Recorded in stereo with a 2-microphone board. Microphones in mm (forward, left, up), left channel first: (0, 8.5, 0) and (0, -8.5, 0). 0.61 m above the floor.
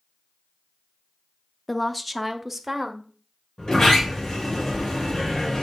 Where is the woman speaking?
15° left (ahead or behind), 0.6 m; by 3.0 s 15° right (ahead or behind), 1.0 m.